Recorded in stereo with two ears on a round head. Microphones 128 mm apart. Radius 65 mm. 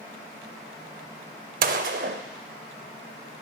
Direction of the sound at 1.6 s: 65° right (ahead or behind).